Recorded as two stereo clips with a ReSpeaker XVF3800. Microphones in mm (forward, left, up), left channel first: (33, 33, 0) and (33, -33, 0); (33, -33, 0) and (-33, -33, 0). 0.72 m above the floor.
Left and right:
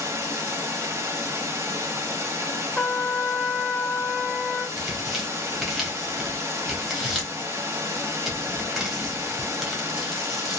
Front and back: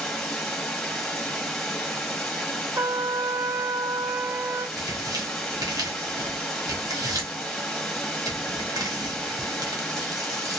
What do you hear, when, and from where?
0.0 s running water: 80° right, 1.0 m
2.8 s a trumpet: 170° left, 0.7 m
4.8 s tearing paper: straight behind, 1.4 m